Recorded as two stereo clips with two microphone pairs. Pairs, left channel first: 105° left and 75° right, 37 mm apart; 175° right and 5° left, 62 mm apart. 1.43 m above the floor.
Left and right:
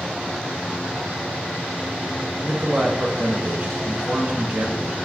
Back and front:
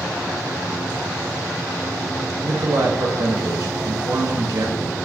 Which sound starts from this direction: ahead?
A man speaking, at 2.4 s.